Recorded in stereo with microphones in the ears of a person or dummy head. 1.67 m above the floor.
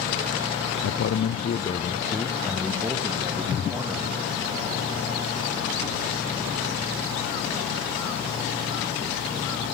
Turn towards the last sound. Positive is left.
turn(degrees=-15)  # may be behind; listen again after turning